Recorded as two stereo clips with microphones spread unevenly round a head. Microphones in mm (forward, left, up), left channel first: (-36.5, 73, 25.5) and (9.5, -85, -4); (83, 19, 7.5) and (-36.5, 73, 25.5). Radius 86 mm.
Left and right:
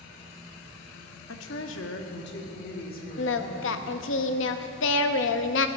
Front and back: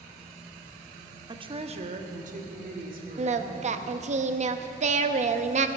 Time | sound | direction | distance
1.3 | a woman speaking | 95° left | 1.2 m
3.2 | singing | 120° left | 0.8 m